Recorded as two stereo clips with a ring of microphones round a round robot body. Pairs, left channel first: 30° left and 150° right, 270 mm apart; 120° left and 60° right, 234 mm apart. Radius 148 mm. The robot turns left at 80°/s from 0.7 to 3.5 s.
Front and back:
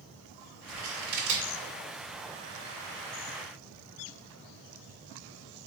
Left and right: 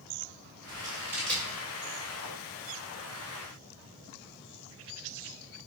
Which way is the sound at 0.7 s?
105° right.